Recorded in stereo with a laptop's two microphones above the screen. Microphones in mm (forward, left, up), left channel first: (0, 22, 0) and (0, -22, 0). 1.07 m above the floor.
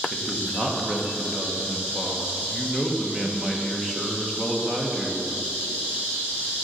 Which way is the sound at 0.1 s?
15° right (ahead or behind).